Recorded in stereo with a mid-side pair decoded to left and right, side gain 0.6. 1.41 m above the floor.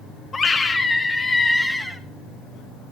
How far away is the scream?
About 1.9 m.